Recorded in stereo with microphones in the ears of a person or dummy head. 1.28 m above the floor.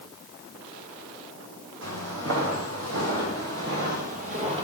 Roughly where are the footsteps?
Right.